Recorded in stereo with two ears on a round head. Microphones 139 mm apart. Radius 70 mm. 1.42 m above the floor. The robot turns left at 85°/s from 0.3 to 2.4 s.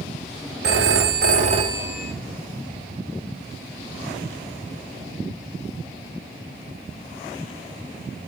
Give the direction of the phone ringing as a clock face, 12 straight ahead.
2 o'clock.